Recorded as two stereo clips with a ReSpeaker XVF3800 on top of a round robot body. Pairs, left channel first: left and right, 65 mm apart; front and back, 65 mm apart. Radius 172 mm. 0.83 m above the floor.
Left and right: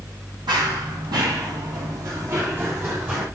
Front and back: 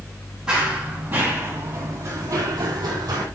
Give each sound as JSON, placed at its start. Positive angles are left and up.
{"t": 0.5, "sound": "running footsteps", "azimuth_deg": -100, "distance_m": 2.0}